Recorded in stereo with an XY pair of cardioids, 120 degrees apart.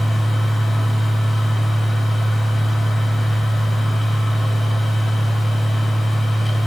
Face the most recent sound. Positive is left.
turn(degrees=5)